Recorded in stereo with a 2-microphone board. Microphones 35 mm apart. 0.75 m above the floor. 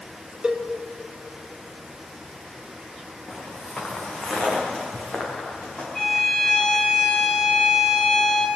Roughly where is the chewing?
No chewing in this recording.